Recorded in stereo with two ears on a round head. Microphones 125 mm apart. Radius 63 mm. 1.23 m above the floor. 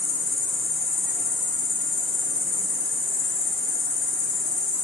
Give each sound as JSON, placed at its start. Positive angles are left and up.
{"t": 0.0, "sound": "an insect", "side_deg": 80, "distance_m": 1.3}